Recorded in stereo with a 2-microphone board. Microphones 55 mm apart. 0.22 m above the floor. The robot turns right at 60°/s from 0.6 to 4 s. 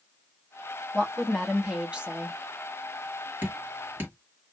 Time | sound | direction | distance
0.9 | a woman speaking | 150° left | 1.3 m
3.4 | dripping | 40° right (ahead or behind) | 1.7 m